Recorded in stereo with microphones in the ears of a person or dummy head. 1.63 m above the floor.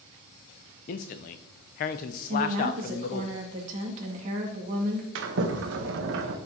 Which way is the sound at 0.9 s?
40° left (ahead or behind).